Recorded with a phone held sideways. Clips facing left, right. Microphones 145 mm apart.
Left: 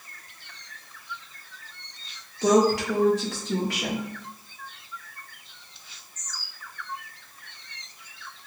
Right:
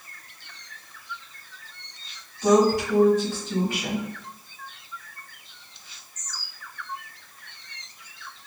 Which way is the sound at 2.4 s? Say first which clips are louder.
Right 1 dB; 75° left (ahead or behind).